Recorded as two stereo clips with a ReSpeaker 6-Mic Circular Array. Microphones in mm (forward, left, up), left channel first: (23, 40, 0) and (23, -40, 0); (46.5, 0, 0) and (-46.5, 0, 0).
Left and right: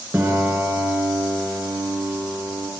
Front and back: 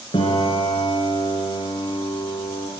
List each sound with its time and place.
0.1 s a piano: 25° right, 3 m